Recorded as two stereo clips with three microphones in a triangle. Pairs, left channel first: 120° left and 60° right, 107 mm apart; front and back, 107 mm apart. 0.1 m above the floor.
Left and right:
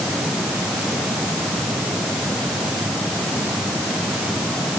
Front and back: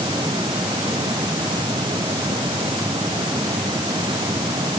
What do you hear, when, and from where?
Only background noise.